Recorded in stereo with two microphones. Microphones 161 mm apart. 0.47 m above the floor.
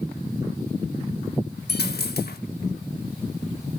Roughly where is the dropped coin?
Left.